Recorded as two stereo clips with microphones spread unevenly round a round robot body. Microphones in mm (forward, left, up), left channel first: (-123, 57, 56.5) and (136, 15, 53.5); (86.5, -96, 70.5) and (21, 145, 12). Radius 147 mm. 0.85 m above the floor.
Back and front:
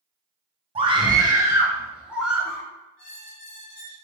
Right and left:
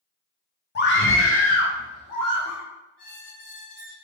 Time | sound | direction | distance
0.8 | a scream | 45° right | 0.7 m
3.0 | a squeak | 135° right | 1.7 m